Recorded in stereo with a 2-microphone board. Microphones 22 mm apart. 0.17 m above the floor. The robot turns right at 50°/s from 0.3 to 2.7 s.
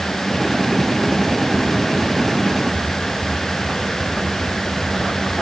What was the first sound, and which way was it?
Only background noise.